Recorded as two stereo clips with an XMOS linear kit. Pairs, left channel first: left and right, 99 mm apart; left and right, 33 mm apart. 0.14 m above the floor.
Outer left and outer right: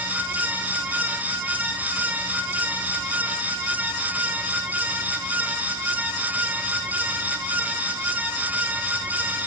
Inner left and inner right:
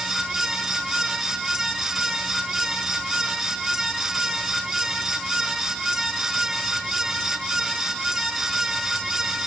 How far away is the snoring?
I don't hear snoring.